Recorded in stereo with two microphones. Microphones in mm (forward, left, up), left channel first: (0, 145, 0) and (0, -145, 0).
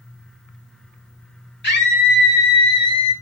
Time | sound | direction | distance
1.6 | a scream | 35° left (ahead or behind) | 1.5 m